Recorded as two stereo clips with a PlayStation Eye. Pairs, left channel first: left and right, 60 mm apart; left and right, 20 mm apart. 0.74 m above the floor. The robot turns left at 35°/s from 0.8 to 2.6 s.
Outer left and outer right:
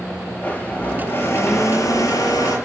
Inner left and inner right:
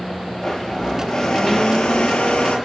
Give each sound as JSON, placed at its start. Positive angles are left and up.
{"t": 0.4, "sound": "a blender", "azimuth_deg": 150, "distance_m": 7.0}